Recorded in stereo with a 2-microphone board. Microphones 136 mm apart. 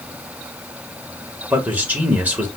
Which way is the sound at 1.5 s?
10° right (ahead or behind).